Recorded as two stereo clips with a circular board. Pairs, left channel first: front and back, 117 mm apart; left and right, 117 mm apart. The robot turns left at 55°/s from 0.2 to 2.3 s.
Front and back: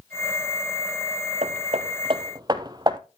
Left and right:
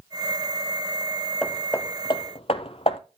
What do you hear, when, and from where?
1.4 s hammering: 175° left, 1.0 m; by 3.0 s 125° left, 1.0 m